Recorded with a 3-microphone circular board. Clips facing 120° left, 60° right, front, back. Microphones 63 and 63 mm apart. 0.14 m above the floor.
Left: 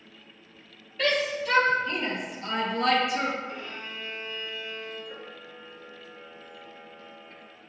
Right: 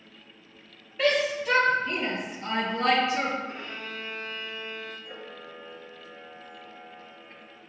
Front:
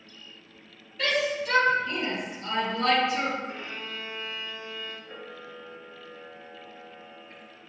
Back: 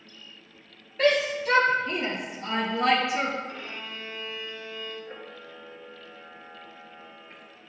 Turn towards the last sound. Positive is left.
turn(degrees=-115)